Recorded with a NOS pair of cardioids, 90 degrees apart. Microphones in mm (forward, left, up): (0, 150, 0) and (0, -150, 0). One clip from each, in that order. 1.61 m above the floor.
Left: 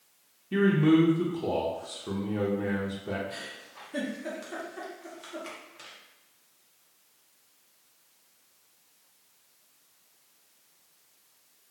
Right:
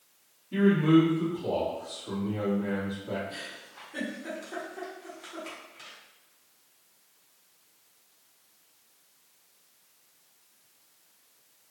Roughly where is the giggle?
Ahead left.